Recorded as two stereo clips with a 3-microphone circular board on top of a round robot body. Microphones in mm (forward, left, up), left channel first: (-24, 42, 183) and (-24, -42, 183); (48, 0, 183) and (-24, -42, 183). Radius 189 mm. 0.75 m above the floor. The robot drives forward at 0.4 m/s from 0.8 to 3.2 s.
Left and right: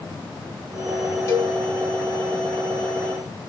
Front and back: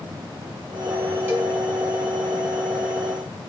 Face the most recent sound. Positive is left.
turn(degrees=160)